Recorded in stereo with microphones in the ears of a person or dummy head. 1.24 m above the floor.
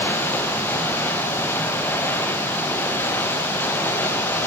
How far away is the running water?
About 0.7 m.